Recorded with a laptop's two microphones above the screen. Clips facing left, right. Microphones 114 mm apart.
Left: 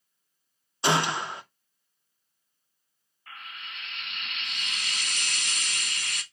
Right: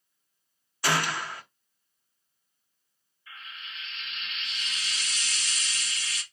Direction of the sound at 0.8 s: 20° left (ahead or behind).